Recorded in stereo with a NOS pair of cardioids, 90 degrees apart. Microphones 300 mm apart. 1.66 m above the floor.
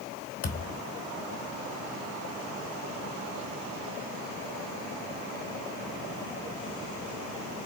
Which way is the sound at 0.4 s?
50° left.